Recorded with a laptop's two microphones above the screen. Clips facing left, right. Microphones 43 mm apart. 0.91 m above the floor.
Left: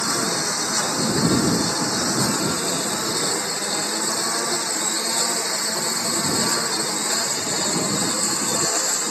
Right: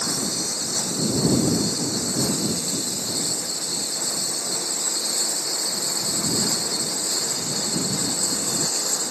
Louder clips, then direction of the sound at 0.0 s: Left 5 dB; 70° left (ahead or behind).